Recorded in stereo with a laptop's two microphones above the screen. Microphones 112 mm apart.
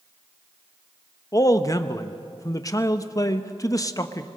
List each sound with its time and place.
1.3 s a man speaking: 30° left (ahead or behind), 0.9 m